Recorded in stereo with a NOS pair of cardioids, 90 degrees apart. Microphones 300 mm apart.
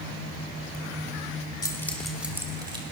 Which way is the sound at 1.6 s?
15° left.